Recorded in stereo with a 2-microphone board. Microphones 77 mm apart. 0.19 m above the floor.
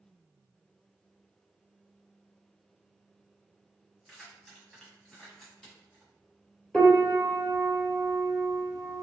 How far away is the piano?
About 1.1 m.